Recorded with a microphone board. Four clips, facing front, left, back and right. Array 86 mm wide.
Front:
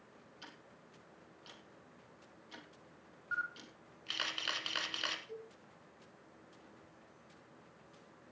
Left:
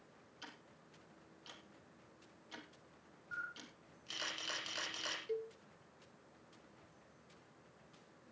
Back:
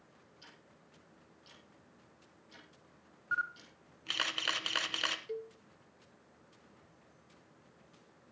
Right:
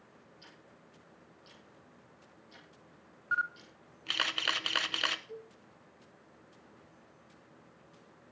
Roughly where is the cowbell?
Behind left.